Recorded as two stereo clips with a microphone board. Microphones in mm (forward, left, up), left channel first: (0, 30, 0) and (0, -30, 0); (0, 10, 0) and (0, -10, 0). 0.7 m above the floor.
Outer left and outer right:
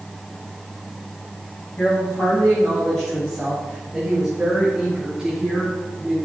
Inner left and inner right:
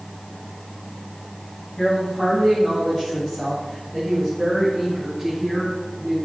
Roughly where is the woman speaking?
Left.